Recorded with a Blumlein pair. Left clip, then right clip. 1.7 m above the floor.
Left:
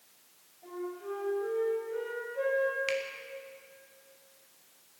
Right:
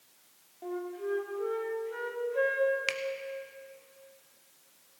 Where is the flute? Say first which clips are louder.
Right 3 dB; 50° right, 3 m.